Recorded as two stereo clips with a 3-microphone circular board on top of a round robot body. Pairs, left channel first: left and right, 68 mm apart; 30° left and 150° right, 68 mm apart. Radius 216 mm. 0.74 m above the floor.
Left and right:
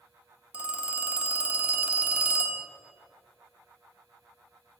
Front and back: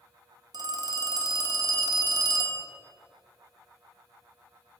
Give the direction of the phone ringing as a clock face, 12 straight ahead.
5 o'clock.